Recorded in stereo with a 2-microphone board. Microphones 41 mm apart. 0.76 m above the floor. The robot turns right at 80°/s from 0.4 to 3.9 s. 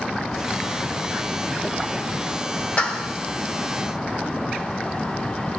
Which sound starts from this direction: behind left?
A clap, at 2.8 s.